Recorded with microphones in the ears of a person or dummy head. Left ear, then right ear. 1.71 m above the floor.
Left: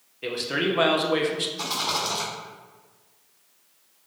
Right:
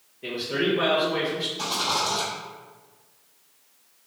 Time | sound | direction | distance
0.2 | a man speaking | 55° left (ahead or behind) | 0.6 m
1.6 | a rattle | 55° left (ahead or behind) | 1.4 m